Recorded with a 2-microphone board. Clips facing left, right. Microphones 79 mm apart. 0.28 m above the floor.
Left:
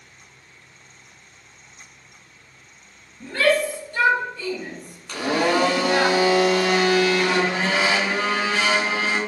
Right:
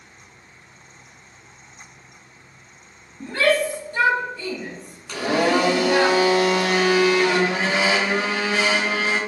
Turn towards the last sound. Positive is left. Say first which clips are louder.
# right 1 dB
turn(degrees=-5)  # may be behind; listen again after turning